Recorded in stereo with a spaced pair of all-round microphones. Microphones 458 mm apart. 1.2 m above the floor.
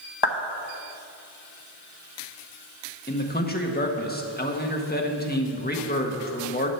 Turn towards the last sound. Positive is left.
turn(degrees=20)  # may be behind; listen again after turning